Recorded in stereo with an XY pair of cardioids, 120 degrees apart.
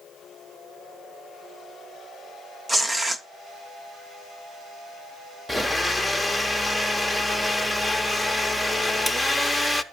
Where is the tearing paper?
15° right, 0.8 m.